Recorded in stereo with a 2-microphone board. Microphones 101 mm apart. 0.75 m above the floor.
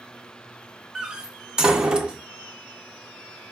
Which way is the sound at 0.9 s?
10° right (ahead or behind).